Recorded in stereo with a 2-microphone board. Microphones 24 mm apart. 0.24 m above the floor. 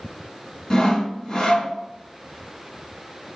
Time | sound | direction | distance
0.7 | sawing | 25° left (ahead or behind) | 2.5 m